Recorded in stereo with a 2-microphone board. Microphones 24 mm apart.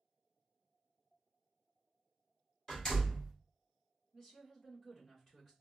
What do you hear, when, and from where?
2.7 s a door slam: 25° left (ahead or behind), 2 m
4.1 s a woman speaking: 20° left (ahead or behind), 1.7 m